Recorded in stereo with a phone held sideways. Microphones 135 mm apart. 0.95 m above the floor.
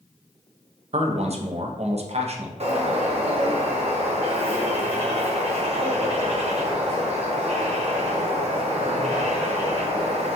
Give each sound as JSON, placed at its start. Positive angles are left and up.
{"t": 0.9, "sound": "a man speaking", "side_deg": -50, "distance_m": 0.6}
{"t": 2.6, "sound": "a bird", "side_deg": -50, "distance_m": 0.8}